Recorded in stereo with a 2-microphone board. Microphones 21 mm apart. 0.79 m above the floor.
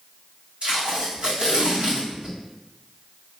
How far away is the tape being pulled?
About 2 m.